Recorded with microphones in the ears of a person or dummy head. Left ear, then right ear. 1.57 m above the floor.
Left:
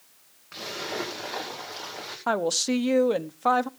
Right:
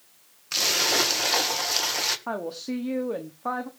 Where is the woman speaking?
75° left (ahead or behind), 0.8 m.